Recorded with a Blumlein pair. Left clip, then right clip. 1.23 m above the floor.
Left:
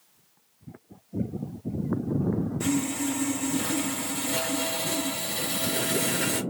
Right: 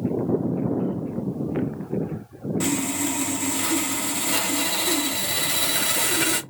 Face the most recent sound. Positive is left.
turn(degrees=-55)